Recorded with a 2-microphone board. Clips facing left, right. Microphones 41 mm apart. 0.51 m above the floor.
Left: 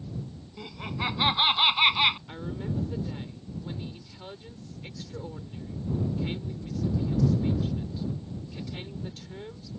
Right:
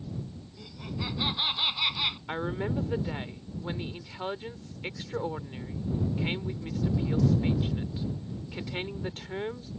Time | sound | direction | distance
0.6 | laughter | 40° left (ahead or behind) | ?
2.3 | a woman speaking | 50° right (ahead or behind) | ?